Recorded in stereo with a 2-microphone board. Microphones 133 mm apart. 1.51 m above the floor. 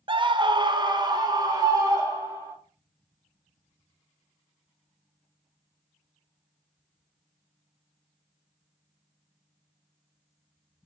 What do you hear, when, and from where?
0.1 s a scream: 40° right (ahead or behind), 0.5 m; by 2.5 s 30° right (ahead or behind), 2.5 m